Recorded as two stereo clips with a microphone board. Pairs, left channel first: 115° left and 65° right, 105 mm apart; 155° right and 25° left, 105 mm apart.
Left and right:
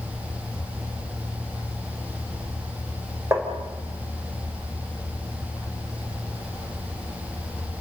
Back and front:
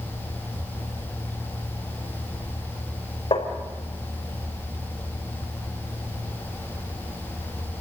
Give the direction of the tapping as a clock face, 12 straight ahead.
4 o'clock.